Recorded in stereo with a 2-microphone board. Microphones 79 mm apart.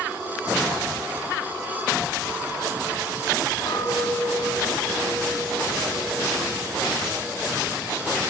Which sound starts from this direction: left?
A clink, at 3.7 s.